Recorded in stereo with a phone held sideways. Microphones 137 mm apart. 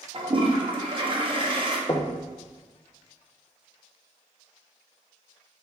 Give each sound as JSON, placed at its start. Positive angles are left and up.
{"t": 0.1, "sound": "a toilet flushing", "side_deg": -40, "distance_m": 1.1}
{"t": 1.9, "sound": "knocking", "side_deg": 30, "distance_m": 0.7}